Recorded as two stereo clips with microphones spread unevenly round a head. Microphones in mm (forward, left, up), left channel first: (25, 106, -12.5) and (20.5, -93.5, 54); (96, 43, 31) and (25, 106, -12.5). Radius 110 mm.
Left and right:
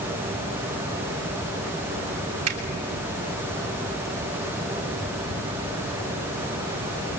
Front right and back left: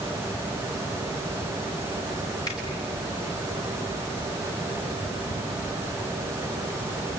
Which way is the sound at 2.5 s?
120° right.